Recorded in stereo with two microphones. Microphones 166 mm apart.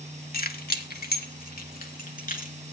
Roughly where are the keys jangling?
Left.